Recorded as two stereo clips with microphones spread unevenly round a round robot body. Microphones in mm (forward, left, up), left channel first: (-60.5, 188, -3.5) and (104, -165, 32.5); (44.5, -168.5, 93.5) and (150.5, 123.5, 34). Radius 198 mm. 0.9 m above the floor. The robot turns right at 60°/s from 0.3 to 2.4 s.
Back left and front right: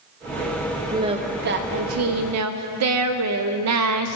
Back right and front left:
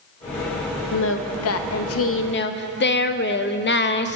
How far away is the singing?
About 0.6 m.